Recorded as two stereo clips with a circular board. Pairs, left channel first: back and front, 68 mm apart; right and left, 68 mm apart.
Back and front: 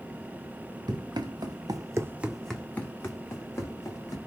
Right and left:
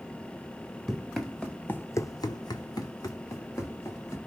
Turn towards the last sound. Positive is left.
turn(degrees=-135)